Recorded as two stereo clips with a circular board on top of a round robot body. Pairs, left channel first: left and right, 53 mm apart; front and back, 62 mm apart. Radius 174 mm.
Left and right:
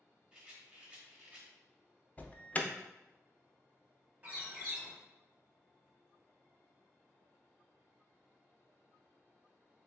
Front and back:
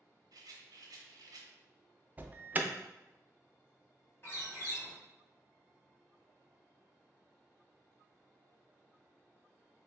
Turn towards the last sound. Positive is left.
turn(degrees=-35)